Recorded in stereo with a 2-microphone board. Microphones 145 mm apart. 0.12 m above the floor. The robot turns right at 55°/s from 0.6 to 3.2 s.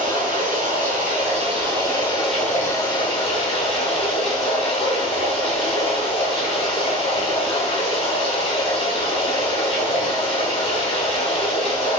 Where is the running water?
95° right, 1.0 m; by 12.0 s 50° left, 1.0 m.